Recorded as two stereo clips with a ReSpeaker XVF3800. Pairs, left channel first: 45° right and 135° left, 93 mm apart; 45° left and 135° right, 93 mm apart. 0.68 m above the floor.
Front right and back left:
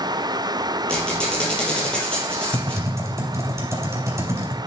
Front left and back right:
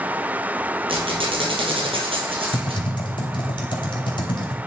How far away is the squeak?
About 3 m.